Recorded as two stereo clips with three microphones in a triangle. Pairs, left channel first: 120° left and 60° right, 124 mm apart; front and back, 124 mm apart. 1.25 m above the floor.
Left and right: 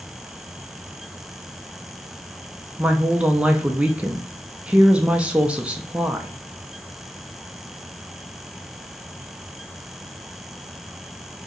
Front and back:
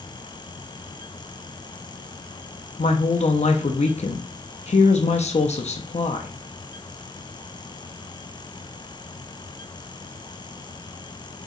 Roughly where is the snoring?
I don't hear snoring.